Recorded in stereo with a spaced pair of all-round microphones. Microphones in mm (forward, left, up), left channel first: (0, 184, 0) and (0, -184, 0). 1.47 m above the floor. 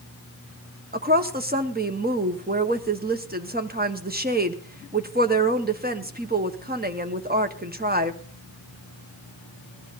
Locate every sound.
0.9 s a woman speaking: 25° right (ahead or behind), 1.1 m